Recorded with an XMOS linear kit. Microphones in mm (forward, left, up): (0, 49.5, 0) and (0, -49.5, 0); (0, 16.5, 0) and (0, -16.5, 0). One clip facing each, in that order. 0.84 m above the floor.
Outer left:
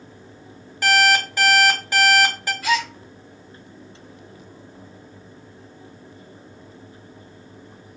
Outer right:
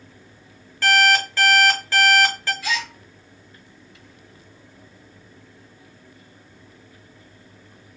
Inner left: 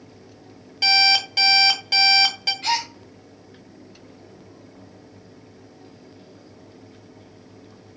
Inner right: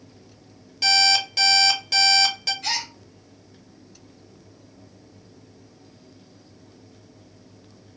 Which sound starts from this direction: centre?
An alarm clock, at 0.8 s.